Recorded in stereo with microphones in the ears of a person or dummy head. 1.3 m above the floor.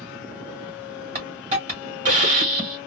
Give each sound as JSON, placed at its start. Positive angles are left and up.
{"t": 1.1, "sound": "a hiss", "side_deg": -35, "distance_m": 1.1}